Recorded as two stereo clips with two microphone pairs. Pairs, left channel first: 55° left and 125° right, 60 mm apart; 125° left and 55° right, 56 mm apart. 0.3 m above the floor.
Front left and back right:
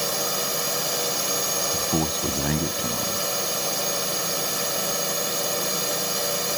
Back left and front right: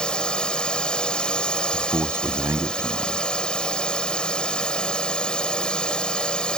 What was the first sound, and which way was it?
A drone, 150° left.